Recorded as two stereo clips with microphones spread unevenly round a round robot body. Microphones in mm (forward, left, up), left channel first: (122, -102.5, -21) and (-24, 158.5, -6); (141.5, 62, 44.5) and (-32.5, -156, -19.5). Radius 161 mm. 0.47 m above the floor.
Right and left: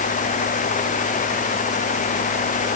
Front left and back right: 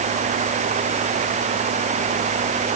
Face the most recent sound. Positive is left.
No sound to turn to.